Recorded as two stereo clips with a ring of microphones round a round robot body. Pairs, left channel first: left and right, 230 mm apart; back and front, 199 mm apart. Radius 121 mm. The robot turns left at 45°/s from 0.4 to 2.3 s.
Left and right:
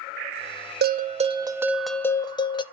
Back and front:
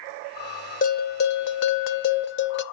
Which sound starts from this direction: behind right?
A bell, at 0.8 s.